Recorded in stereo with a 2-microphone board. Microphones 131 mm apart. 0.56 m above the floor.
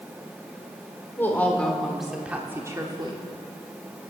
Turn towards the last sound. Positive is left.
turn(degrees=-40)  # may be behind; listen again after turning